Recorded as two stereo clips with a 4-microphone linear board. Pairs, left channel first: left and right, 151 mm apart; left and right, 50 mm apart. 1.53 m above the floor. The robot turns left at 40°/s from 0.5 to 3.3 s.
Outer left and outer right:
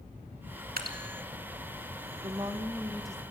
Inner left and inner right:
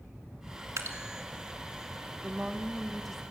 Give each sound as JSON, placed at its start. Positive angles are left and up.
{"t": 0.8, "sound": "dripping", "side_deg": -75, "distance_m": 2.5}
{"t": 2.2, "sound": "a woman speaking", "azimuth_deg": -145, "distance_m": 1.5}